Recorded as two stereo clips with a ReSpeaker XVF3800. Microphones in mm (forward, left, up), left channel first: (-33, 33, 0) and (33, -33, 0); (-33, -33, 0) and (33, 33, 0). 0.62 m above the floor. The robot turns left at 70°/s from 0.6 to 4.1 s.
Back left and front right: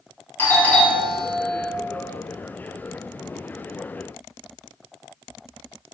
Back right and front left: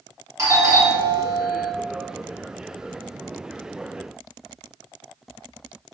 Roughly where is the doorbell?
Left.